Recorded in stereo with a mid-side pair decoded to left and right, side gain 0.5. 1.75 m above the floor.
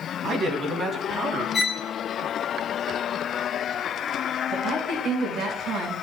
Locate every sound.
0.2 s a man speaking: 50° right, 3 m; by 1.4 s 40° right, 4 m
1.5 s a violin: 25° left, 2 m
4.5 s a woman speaking: 60° right, 7 m